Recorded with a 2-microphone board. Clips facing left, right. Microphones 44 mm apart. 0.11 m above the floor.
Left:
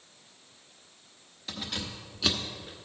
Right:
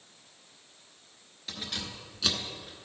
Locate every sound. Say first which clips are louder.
1.5 s keys jangling: left 1 dB; 5° left (ahead or behind), 1.3 m